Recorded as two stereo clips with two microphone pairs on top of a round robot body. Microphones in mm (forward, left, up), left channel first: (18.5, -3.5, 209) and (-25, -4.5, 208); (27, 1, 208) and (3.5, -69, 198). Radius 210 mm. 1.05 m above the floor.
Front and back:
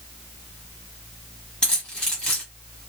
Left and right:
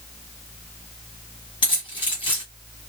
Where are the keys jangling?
70° left, 1.3 m.